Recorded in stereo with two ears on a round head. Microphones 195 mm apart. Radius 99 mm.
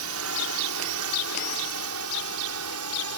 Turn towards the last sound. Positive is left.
turn(degrees=-75)  # may be behind; listen again after turning